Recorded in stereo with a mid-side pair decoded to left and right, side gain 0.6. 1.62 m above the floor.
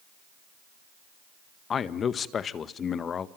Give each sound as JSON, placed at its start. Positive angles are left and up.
{"t": 1.7, "sound": "a man speaking", "azimuth_deg": 40, "distance_m": 1.7}